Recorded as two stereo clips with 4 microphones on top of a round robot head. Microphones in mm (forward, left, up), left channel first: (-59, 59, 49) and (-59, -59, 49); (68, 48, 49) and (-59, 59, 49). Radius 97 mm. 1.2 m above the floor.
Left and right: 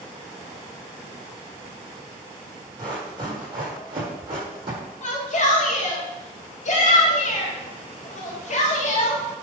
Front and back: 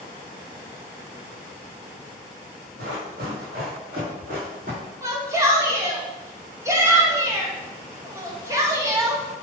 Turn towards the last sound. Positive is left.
turn(degrees=105)